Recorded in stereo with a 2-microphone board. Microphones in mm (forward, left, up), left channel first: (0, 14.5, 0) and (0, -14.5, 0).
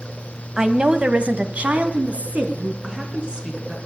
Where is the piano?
No piano in this recording.